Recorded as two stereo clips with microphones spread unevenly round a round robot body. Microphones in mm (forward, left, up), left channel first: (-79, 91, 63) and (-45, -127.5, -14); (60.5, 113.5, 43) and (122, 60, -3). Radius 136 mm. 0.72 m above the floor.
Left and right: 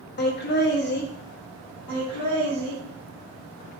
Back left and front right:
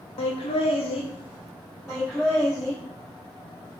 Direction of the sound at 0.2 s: 150° left.